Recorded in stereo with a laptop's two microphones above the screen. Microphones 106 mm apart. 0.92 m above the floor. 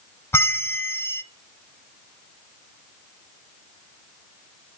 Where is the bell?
25° left (ahead or behind), 0.6 m.